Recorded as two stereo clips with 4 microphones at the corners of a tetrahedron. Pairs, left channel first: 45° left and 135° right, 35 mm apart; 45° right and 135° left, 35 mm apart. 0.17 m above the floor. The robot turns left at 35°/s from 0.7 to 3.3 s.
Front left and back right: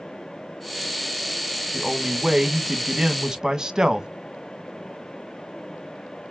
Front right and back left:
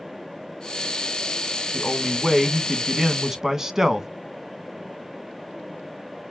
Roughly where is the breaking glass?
No breaking glass in this recording.